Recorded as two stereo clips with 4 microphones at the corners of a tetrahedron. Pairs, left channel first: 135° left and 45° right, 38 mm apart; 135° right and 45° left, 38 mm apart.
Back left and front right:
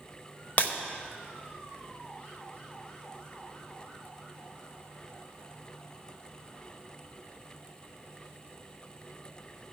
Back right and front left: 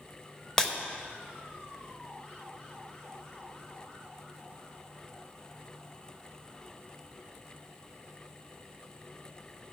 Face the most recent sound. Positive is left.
turn(degrees=155)